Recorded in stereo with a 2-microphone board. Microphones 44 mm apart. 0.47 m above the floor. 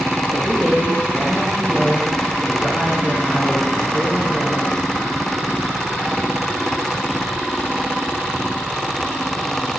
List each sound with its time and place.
0.3 s a man speaking: 30° right (ahead or behind), 1.9 m